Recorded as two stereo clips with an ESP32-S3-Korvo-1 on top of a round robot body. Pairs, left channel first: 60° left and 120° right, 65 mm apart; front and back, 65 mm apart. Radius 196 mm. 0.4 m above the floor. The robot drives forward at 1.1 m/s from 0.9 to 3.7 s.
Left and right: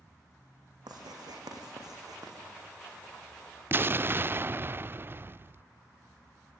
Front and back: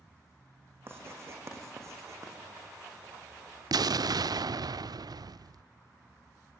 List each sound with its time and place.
0.9 s writing: 125° right, 5.5 m; by 2.4 s 140° right, 7 m
3.7 s an explosion: 175° right, 0.6 m